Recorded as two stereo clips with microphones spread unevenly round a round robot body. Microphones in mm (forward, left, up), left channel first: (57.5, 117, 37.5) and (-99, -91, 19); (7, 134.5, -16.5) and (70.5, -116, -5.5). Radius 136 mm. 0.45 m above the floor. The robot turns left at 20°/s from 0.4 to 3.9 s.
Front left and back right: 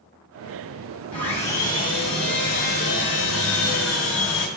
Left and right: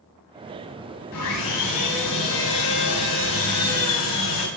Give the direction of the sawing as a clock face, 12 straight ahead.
7 o'clock.